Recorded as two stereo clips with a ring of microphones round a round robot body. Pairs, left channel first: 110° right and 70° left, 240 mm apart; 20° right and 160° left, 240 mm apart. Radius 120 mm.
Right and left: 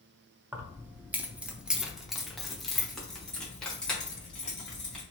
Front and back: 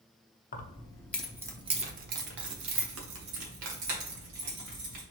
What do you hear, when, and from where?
0.5 s keys jangling: 10° right, 0.7 m; by 5.0 s 160° left, 2.0 m